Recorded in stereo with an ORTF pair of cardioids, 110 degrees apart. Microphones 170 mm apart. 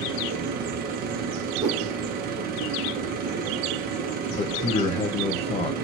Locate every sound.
0.0 s a machine running: 65° right, 0.8 m
1.6 s a whoosh: 45° right, 1.0 m
4.3 s a man speaking: 40° left, 0.9 m